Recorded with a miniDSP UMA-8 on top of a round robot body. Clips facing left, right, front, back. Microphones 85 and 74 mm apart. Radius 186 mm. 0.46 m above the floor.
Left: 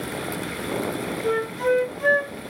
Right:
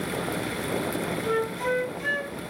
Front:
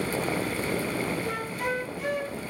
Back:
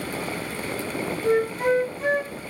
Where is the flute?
130° left, 1.0 m.